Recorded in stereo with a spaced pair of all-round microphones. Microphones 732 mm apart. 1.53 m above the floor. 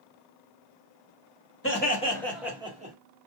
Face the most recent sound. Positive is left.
turn(degrees=-10)  # may be behind; listen again after turning